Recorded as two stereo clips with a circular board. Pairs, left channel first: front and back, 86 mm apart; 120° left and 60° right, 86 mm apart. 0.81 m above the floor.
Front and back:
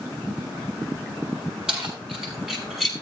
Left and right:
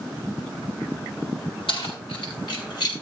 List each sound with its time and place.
1.7 s keys jangling: 100° left, 6.5 m; by 2.9 s 90° left, 5.5 m